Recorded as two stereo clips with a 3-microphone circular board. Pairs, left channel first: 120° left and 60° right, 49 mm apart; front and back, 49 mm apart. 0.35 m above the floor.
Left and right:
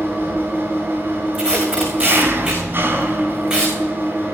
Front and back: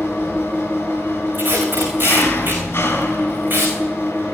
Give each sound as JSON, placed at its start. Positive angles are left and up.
{"t": 0.0, "sound": "an engine running", "azimuth_deg": -25, "distance_m": 3.0}
{"t": 1.3, "sound": "tape being pulled", "azimuth_deg": -135, "distance_m": 5.0}